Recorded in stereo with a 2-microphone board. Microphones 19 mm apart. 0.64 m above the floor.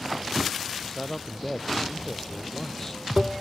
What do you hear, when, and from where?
0.7 s a man speaking: 25° left (ahead or behind)